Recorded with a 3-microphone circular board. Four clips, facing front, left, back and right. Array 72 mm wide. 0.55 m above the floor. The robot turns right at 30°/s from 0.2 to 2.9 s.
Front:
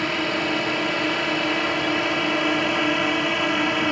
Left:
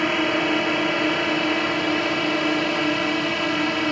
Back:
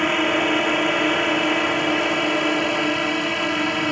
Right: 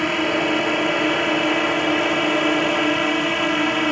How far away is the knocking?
No knocking in this recording.